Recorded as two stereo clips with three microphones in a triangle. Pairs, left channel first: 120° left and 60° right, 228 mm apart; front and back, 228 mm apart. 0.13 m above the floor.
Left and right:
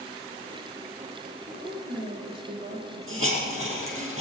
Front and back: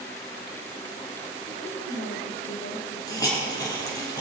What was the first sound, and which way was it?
A woman speaking, 20° right.